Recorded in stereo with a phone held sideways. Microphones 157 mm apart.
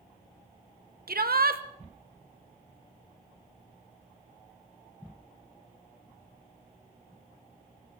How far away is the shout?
About 1.3 m.